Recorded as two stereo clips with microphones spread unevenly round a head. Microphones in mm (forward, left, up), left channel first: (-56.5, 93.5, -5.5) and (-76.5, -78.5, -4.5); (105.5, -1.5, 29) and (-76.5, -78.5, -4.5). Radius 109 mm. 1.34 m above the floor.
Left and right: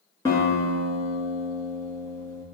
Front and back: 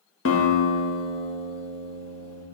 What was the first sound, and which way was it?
A guitar, 5° left.